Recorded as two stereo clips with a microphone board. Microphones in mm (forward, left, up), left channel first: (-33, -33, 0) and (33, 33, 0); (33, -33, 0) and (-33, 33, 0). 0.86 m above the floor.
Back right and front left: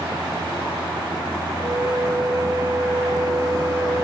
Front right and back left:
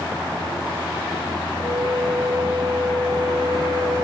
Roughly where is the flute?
Left.